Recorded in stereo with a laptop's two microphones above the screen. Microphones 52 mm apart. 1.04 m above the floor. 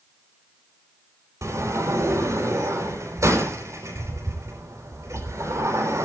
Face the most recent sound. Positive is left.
turn(degrees=-75)  # may be behind; listen again after turning